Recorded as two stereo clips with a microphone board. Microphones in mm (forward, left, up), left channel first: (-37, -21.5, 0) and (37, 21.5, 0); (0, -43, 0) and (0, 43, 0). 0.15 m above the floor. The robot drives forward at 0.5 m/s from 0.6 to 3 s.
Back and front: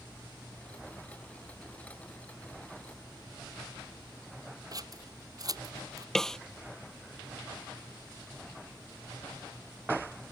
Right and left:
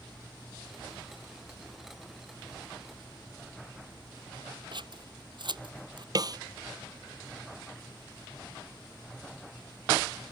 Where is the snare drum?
125° left.